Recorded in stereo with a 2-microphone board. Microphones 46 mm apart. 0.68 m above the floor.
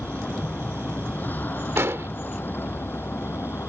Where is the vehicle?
40° left (ahead or behind); by 3.7 s 60° left (ahead or behind).